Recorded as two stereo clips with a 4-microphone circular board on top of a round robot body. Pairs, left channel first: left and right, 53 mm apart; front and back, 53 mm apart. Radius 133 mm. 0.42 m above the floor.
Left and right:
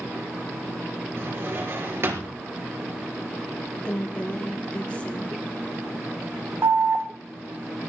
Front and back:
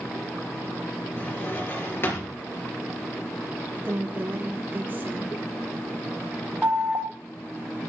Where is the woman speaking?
145° left, 1.4 m.